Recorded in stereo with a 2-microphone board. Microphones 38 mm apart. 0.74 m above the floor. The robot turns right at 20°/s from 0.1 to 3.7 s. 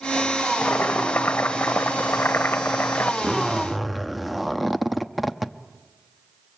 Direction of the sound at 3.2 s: 10° right (ahead or behind).